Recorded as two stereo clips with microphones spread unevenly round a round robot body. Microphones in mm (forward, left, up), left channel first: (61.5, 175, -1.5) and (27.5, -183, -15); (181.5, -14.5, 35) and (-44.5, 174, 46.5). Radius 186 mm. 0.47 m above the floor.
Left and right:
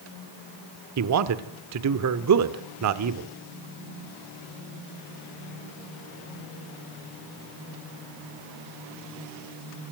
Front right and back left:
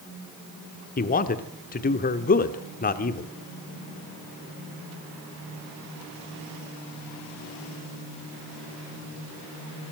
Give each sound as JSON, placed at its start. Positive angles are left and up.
{"t": 1.0, "sound": "a man speaking", "azimuth_deg": -85, "distance_m": 1.0}